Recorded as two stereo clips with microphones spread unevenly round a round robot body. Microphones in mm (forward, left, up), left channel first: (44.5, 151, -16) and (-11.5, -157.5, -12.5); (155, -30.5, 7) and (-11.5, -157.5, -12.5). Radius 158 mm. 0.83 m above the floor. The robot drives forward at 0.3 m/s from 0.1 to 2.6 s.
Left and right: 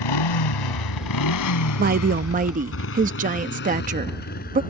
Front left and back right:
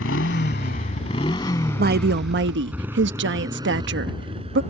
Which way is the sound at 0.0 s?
90° left.